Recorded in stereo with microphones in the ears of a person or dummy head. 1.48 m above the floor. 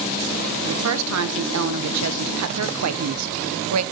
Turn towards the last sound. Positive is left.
turn(degrees=-80)